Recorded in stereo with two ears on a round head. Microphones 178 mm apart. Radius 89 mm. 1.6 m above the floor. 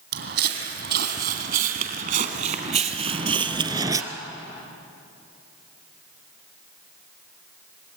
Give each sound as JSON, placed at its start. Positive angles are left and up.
{"t": 0.1, "sound": "footsteps", "side_deg": -60, "distance_m": 3.0}